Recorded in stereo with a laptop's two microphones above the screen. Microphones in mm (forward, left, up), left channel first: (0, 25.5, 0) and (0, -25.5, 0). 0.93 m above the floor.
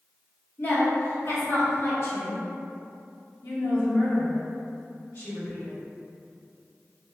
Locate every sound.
0.6 s a woman speaking: 45° left (ahead or behind), 1.5 m; by 2.4 s 65° left (ahead or behind), 1.5 m
3.4 s a woman speaking: 60° left (ahead or behind), 1.4 m